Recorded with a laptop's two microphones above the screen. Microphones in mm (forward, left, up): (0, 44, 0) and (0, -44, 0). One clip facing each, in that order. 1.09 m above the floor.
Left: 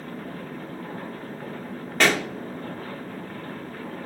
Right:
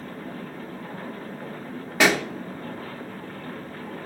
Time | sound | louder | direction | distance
2.0 | a pop | right 1 dB | 10° right (ahead or behind) | 0.7 m